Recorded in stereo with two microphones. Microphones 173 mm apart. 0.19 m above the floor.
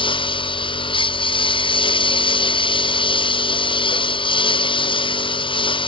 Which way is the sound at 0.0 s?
30° left (ahead or behind).